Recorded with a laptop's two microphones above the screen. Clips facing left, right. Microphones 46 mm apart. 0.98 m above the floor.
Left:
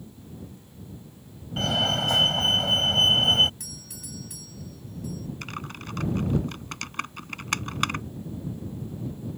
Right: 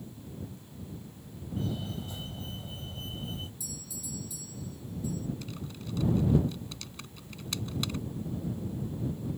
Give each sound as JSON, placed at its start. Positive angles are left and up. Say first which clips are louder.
{"t": 1.6, "sound": "a fire alarm", "louder": "left 12 dB", "side_deg": 80}
{"t": 3.6, "sound": "a doorbell", "louder": "even", "side_deg": 55}
{"t": 5.4, "sound": "typing on a keyboard", "louder": "left 5 dB", "side_deg": 55}